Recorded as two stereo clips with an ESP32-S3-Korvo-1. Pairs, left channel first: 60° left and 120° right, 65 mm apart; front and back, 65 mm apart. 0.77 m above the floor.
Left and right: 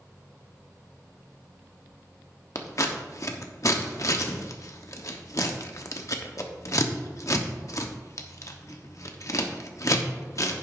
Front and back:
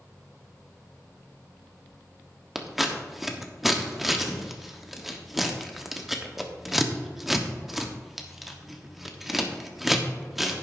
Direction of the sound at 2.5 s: 95° left.